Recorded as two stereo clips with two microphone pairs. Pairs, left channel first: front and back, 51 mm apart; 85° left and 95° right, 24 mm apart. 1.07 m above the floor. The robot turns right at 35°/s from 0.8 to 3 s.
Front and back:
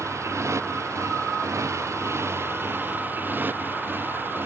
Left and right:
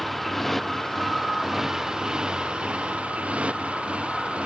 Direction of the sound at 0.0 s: 170° left.